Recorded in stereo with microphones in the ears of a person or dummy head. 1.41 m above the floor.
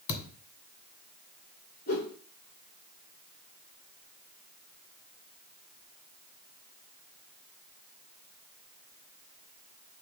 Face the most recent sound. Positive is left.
turn(degrees=55)  # may be behind; listen again after turning